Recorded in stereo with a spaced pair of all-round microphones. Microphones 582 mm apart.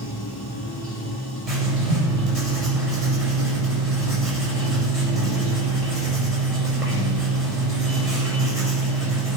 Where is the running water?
40° left (ahead or behind), 3 m.